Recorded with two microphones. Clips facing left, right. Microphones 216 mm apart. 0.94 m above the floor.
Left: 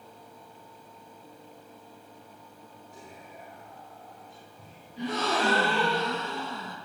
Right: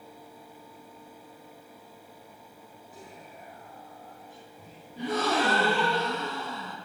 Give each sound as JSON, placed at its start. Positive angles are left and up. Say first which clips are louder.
{"t": 2.9, "sound": "whispering", "louder": "right 1 dB", "side_deg": -5, "distance_m": 3.5}
{"t": 5.0, "sound": "a gasp", "louder": "right 2 dB", "side_deg": -50, "distance_m": 4.5}